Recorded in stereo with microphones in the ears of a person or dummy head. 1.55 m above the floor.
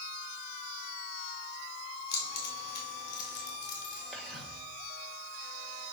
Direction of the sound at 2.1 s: 65° left (ahead or behind).